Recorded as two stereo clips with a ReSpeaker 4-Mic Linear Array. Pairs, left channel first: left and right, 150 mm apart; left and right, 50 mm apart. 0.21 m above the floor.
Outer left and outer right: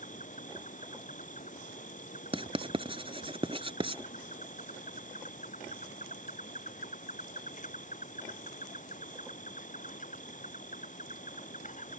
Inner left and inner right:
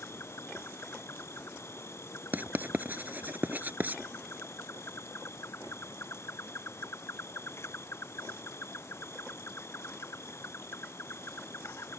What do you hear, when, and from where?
0.0 s an insect: 60° left (ahead or behind)
2.3 s writing: 40° right (ahead or behind)